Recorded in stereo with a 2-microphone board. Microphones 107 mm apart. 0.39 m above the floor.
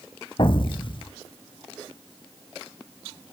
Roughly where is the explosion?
Left.